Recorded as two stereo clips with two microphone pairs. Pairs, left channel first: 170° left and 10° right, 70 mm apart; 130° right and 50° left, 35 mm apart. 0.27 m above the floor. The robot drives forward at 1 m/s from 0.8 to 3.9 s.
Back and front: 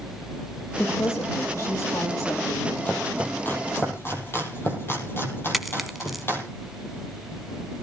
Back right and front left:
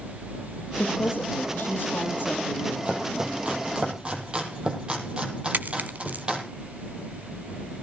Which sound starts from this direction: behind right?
A woman speaking, at 0.8 s.